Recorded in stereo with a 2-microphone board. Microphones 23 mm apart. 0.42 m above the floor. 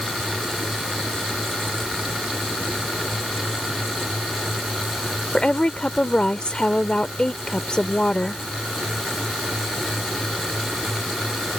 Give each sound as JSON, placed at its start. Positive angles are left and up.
{"t": 5.3, "sound": "a woman speaking", "side_deg": 40}